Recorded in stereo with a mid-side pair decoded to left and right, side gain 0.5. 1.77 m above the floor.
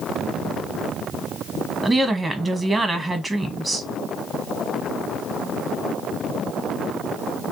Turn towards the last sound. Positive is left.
turn(degrees=-20)